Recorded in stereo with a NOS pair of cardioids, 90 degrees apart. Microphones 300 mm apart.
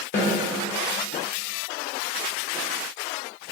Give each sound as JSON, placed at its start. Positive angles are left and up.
{"t": 0.1, "sound": "a snare drum", "azimuth_deg": 40, "distance_m": 0.8}